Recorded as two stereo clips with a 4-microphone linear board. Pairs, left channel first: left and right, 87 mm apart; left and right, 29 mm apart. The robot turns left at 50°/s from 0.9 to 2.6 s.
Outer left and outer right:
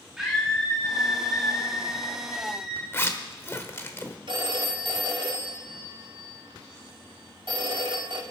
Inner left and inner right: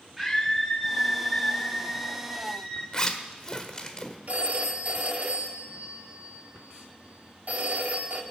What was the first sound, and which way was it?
A scream, 175° right.